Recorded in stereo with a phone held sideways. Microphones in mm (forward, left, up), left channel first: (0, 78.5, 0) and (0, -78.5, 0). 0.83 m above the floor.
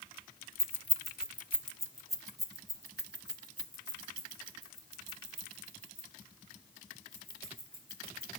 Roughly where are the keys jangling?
Left.